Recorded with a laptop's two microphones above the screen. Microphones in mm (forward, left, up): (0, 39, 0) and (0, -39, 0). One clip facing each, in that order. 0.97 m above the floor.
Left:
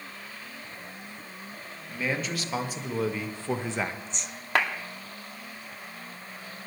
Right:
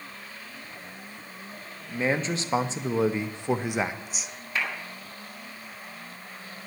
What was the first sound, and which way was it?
A man speaking, 30° right (ahead or behind).